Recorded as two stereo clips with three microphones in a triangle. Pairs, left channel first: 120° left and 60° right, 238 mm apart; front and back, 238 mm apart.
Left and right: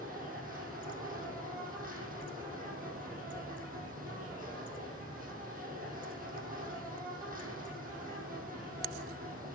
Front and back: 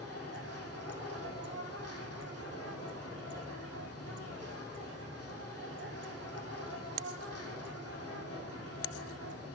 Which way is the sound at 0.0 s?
5° right.